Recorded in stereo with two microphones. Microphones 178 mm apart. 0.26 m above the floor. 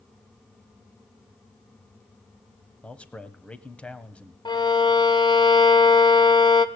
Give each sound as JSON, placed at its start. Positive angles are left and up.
{"t": 2.8, "sound": "a man speaking", "side_deg": 5, "distance_m": 1.1}
{"t": 4.5, "sound": "a violin", "side_deg": 25, "distance_m": 0.9}